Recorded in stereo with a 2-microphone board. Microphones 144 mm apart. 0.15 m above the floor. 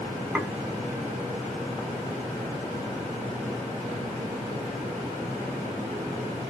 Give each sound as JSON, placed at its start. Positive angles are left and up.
{"t": 0.3, "sound": "dishes clattering", "side_deg": -10, "distance_m": 0.8}